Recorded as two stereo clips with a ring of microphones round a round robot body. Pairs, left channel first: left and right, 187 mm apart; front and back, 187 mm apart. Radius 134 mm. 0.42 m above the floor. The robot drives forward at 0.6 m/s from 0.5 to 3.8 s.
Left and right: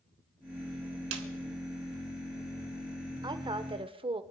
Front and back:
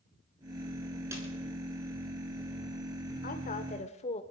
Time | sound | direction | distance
1.1 | a snare drum | 100° right | 1.1 m
3.2 | a woman speaking | 25° right | 1.2 m